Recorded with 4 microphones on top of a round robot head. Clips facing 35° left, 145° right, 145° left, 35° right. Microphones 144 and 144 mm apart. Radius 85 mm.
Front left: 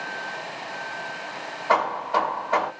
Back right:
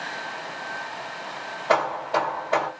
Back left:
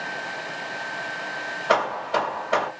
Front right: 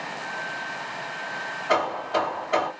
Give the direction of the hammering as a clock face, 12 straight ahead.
7 o'clock.